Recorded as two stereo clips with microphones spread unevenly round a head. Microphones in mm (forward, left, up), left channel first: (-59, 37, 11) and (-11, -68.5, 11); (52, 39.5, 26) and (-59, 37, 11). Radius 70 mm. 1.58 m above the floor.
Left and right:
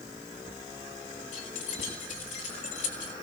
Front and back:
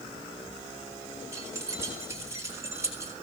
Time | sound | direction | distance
1.3 | keys jangling | 115° left | 8 m